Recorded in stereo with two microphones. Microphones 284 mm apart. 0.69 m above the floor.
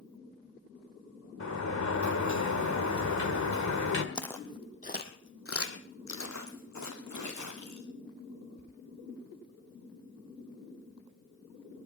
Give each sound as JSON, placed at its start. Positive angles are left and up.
{"t": 1.4, "sound": "a sliding door", "side_deg": 75, "distance_m": 1.8}
{"t": 4.2, "sound": "footsteps", "side_deg": 5, "distance_m": 1.9}